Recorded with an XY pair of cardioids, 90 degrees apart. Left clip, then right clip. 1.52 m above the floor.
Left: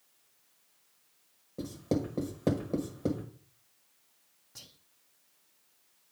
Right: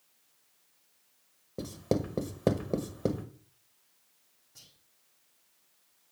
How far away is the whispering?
About 0.6 m.